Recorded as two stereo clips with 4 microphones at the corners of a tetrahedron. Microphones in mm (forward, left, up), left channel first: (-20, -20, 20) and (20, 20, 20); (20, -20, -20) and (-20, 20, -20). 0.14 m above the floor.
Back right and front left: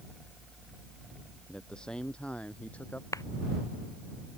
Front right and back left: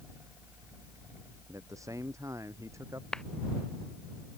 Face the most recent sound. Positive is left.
turn(degrees=-125)